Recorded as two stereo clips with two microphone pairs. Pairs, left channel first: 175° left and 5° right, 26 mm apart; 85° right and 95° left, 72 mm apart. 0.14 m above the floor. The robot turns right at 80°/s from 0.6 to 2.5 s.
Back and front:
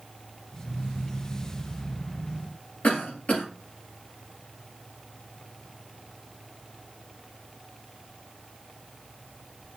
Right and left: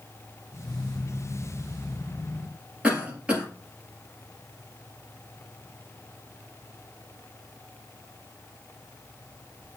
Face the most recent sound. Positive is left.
turn(degrees=170)